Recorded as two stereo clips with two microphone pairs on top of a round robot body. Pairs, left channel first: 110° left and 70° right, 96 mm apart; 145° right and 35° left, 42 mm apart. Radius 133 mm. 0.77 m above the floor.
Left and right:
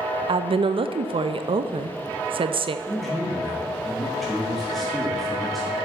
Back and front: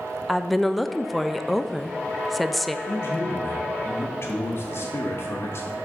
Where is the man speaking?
165° right, 1.0 m.